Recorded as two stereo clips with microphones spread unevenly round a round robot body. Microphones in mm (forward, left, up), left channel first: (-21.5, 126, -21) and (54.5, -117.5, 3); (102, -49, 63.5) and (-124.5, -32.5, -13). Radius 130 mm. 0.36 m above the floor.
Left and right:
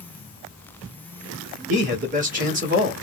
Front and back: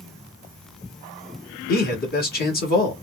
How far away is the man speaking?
About 1.5 m.